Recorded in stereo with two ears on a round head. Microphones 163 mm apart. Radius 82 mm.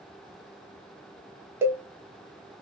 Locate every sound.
1.6 s a cowbell: 15° right (ahead or behind), 0.7 m